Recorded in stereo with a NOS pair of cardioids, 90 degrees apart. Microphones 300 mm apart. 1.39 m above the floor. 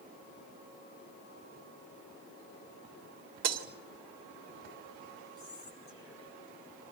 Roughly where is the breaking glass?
Ahead right.